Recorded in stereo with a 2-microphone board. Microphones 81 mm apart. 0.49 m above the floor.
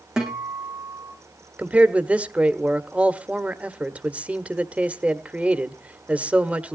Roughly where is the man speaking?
Centre.